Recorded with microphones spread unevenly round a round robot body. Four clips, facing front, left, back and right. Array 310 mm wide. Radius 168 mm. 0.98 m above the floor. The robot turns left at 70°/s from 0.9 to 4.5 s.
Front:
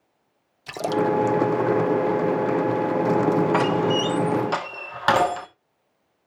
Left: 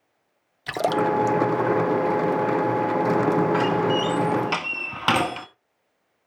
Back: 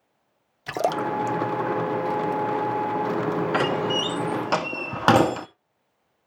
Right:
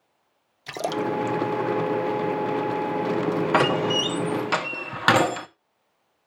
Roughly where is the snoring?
I don't hear snoring.